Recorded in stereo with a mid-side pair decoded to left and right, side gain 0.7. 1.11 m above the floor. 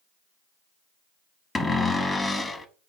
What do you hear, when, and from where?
1.6 s a cupboard door: 15° left, 0.9 m